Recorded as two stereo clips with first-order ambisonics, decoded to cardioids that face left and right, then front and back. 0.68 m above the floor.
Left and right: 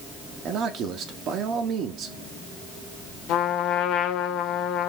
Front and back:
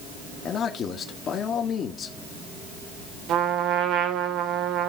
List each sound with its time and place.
0.5 s a man speaking: 50° right, 1.6 m
3.3 s a trumpet: 135° left, 1.2 m